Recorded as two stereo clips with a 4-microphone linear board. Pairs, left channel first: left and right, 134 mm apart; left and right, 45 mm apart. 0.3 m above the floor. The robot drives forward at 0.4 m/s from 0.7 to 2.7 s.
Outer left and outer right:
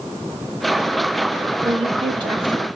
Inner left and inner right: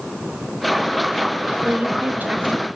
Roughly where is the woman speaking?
Right.